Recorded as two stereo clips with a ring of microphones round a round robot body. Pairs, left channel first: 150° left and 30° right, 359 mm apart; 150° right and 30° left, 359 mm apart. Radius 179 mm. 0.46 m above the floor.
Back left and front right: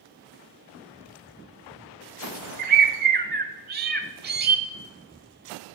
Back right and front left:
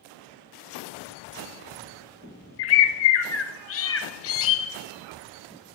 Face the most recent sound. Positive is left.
turn(degrees=-95)